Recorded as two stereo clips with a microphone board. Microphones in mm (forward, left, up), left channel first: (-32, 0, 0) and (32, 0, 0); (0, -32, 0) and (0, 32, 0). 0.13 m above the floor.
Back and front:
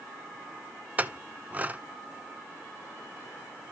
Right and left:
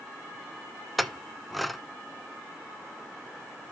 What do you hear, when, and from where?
1.0 s a clink: straight ahead, 0.6 m